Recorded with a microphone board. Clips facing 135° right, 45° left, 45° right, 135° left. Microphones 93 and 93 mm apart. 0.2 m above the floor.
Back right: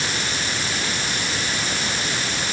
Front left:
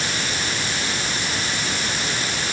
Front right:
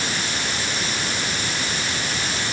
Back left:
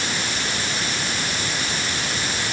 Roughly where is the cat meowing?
No cat meowing in this recording.